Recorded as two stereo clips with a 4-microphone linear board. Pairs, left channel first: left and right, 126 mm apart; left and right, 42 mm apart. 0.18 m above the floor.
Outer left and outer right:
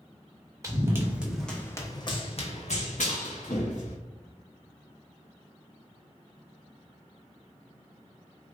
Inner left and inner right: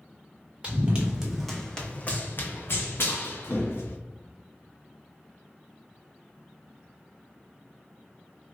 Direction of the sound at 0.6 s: 25° right (ahead or behind).